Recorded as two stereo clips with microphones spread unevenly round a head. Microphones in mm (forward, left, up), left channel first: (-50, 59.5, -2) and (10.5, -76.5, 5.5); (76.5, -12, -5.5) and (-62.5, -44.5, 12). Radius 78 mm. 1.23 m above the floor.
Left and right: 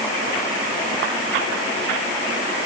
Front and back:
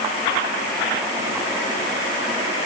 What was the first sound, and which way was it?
Only background noise.